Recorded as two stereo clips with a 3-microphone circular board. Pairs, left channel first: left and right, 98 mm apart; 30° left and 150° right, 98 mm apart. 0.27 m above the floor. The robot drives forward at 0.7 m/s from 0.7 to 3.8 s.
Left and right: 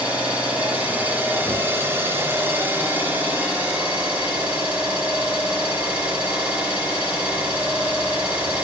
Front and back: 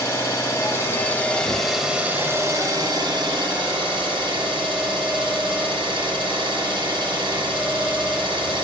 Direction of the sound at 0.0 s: 20° right.